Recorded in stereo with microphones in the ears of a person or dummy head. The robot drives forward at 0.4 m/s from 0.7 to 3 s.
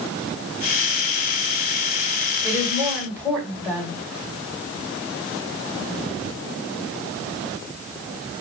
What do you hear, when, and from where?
2.4 s a woman speaking: 5° right (ahead or behind), 1.3 m